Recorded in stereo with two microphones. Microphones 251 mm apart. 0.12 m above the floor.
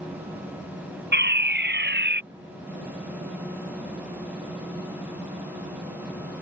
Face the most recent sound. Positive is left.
turn(degrees=-45)  # may be behind; listen again after turning